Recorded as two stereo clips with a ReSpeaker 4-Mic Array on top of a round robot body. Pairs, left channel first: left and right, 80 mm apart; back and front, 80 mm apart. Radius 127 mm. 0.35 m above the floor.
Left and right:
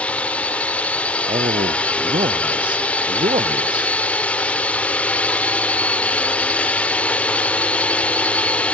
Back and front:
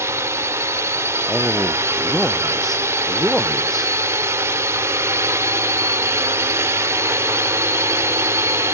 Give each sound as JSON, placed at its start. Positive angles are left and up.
{"t": 0.0, "sound": "a drone", "azimuth_deg": 25}
{"t": 1.3, "sound": "a man speaking", "azimuth_deg": -95}